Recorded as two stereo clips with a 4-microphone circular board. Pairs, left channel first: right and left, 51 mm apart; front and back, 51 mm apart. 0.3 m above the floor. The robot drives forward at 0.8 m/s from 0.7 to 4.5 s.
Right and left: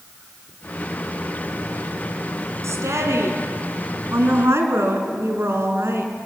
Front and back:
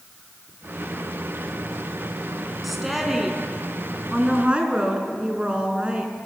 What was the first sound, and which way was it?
A woman speaking, 90° left.